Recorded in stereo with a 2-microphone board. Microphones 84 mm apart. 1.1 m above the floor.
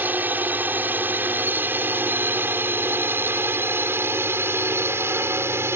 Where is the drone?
20° right (ahead or behind); by 5.8 s 30° right (ahead or behind).